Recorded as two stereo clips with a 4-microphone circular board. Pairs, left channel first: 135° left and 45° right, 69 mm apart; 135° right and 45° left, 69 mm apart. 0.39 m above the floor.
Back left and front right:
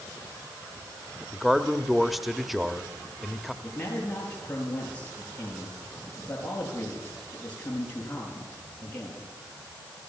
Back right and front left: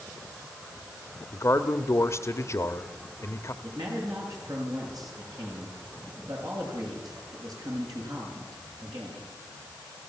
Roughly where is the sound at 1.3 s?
Behind right.